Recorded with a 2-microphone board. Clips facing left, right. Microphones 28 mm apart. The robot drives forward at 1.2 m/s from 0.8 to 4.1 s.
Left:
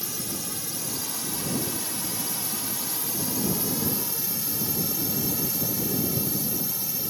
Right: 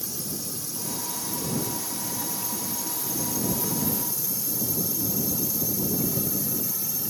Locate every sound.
0.0 s a drone: 50° left (ahead or behind); by 7.1 s 40° left (ahead or behind)